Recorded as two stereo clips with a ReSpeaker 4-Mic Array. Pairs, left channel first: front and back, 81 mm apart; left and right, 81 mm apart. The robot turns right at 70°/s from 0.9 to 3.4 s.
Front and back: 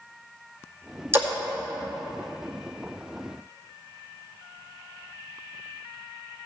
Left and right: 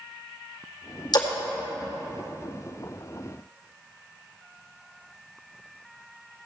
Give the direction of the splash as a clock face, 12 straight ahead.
8 o'clock.